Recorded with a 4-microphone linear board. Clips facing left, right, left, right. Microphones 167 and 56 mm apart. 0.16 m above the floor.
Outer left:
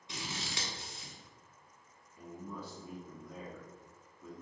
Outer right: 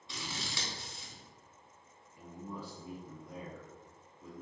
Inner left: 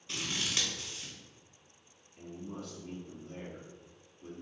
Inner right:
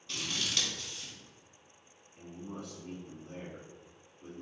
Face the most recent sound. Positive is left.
turn(degrees=-25)  # may be behind; listen again after turning